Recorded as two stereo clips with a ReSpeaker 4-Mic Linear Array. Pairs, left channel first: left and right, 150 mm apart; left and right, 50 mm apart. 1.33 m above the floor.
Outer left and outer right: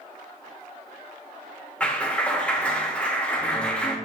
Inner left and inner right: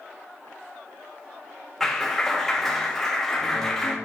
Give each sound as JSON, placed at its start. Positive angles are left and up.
{"t": 1.8, "sound": "a clap", "side_deg": 10, "distance_m": 1.9}